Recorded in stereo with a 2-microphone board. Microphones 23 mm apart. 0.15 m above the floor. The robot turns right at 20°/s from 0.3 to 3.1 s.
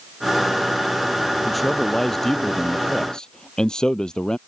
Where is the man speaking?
5° left; by 4.4 s 35° left.